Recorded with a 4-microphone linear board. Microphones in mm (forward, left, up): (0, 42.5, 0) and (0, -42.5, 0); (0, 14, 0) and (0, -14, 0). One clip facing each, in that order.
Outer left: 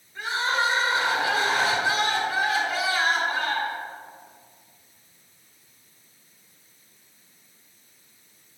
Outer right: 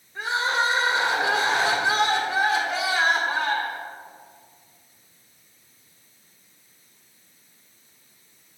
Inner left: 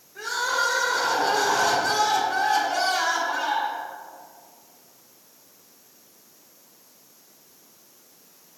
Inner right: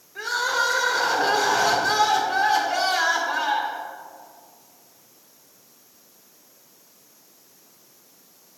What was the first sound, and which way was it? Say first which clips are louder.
Crying: outer right 1 dB, inner right 2 dB; 25° right (ahead or behind).